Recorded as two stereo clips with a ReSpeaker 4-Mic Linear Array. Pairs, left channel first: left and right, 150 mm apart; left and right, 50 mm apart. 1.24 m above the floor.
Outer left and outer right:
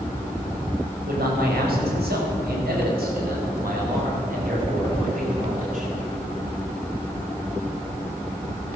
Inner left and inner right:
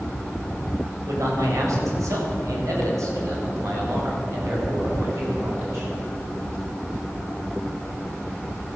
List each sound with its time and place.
1.1 s a man speaking: 80° right, 5 m; by 5.9 s 55° right (ahead or behind), 7.5 m